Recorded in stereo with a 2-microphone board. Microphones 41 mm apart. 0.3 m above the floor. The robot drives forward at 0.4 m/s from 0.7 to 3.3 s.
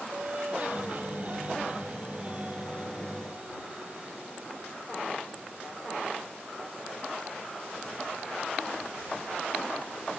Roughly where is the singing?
Right.